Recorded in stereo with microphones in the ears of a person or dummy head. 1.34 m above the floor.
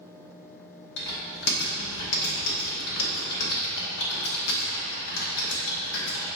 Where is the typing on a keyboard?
50° left (ahead or behind), 0.9 m.